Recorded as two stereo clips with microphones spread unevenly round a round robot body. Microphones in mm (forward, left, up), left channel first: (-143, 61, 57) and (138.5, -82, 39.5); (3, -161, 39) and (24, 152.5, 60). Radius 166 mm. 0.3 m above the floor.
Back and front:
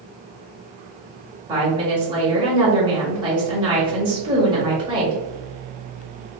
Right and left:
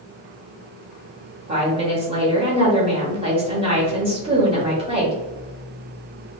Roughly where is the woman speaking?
Ahead left.